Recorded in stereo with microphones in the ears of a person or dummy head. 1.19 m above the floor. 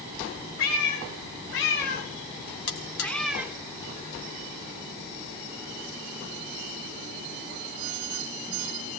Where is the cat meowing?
70° left (ahead or behind), 2 m; by 3.5 s 15° right (ahead or behind), 1.1 m.